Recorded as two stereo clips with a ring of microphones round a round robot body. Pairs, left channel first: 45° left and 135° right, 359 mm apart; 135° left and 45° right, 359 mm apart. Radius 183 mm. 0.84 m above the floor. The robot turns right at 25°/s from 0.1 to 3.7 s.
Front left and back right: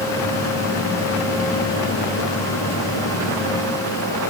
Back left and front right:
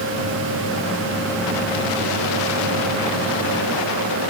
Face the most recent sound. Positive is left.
No sound to turn to.